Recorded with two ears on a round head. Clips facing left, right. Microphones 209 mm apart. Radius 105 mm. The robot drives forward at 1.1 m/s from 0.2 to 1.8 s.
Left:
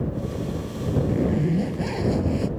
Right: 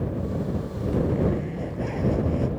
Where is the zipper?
60° left (ahead or behind).